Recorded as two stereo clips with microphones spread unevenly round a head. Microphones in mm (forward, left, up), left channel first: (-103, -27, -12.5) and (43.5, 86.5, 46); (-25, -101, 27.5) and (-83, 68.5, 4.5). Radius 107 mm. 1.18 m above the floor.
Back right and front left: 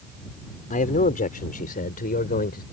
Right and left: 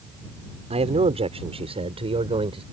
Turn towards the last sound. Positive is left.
turn(degrees=170)